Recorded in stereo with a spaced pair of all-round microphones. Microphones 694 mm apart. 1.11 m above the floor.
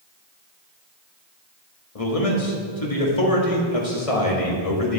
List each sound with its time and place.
1.9 s a man speaking: 55° left (ahead or behind), 1.7 m